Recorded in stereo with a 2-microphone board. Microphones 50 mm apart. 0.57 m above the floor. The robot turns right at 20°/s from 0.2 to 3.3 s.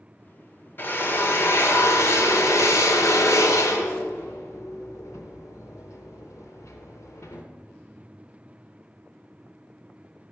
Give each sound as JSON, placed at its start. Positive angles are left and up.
{"t": 0.8, "sound": "a drill", "side_deg": 45, "distance_m": 0.6}